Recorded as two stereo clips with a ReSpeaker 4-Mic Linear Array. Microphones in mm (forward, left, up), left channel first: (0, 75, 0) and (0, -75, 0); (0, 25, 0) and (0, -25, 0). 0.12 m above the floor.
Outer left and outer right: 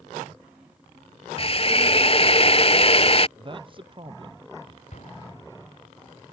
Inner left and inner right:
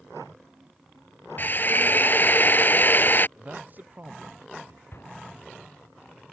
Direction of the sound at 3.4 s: 35° right (ahead or behind).